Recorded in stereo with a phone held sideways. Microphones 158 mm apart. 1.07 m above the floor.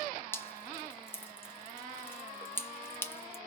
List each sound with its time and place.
0.3 s dripping: 15° left (ahead or behind), 0.9 m